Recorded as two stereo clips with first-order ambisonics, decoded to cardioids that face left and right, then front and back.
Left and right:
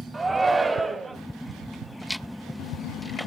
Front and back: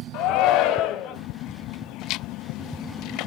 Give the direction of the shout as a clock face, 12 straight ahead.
1 o'clock.